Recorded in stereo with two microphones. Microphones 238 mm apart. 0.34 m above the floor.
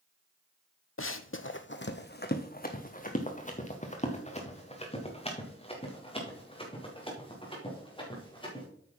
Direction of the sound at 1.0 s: 60° left (ahead or behind).